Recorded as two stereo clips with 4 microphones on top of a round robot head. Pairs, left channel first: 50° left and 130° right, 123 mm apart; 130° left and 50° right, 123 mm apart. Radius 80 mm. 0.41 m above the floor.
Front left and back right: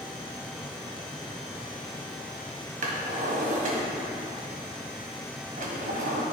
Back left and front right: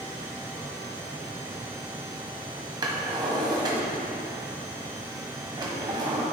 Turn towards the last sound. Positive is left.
turn(degrees=-110)